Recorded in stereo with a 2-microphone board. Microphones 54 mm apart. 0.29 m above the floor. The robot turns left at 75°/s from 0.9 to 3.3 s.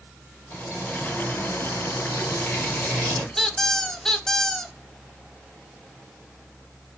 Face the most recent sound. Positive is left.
turn(degrees=5)  # may be behind; listen again after turning